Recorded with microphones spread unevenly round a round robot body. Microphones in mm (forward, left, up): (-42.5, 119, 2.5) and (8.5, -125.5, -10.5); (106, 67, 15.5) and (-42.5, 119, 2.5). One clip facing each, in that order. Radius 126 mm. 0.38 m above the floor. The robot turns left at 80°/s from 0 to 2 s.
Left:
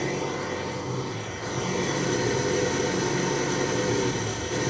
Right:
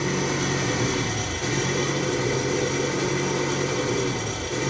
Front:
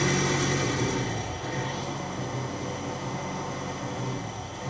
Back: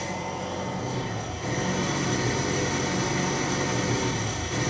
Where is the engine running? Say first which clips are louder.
Right 3 dB, front 6 dB; 5° right, 4.5 m; by 4.7 s 165° right, 4.5 m.